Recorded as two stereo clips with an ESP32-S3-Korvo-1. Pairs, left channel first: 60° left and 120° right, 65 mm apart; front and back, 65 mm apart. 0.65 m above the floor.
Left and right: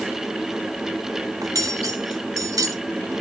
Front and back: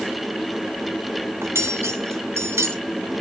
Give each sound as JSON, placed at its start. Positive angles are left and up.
{"t": 1.4, "sound": "cutlery clinking", "azimuth_deg": -135, "distance_m": 1.2}